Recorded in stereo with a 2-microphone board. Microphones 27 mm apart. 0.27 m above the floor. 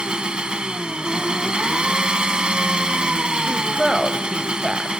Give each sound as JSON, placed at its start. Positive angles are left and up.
{"t": 0.0, "sound": "an engine running", "side_deg": -40, "distance_m": 0.8}
{"t": 3.5, "sound": "a woman speaking", "side_deg": -20, "distance_m": 0.9}